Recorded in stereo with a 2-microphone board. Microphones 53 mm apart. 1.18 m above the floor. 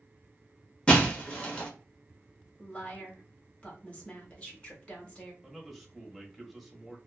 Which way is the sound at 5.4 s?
Centre (ahead or behind).